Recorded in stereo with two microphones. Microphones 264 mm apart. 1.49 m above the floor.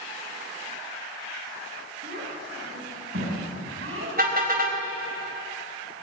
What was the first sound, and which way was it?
A child speaking, 45° right (ahead or behind).